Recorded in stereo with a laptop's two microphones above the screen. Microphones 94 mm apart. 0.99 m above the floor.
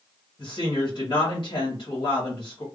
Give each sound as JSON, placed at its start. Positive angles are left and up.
{"t": 0.4, "sound": "a woman speaking", "side_deg": 50, "distance_m": 1.4}